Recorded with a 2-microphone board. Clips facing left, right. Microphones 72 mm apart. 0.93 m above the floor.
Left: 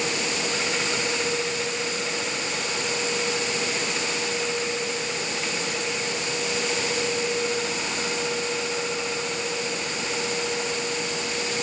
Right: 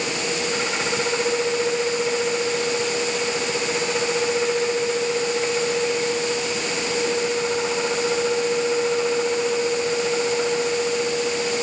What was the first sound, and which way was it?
Only background noise.